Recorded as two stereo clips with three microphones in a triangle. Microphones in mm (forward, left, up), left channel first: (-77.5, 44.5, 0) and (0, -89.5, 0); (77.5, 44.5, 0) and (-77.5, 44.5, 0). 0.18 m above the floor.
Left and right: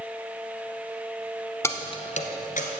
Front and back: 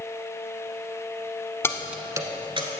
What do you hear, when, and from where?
1.6 s keys jangling: 60° left, 0.9 m; by 2.7 s 130° left, 1.8 m